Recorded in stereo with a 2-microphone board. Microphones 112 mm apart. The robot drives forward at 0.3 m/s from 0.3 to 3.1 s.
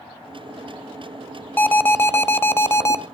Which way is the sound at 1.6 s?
20° left (ahead or behind).